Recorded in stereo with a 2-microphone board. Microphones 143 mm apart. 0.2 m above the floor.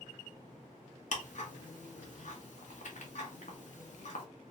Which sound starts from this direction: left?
Ticking, at 1.1 s.